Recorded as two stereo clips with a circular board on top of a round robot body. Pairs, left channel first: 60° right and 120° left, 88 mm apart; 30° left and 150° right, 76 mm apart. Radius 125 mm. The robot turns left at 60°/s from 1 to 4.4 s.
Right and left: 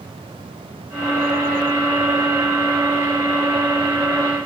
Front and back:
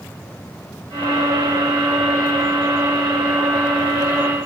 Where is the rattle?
I don't hear a rattle.